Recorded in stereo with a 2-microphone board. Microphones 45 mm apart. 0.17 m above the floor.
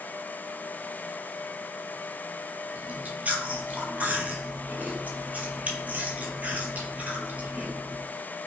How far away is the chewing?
About 0.5 m.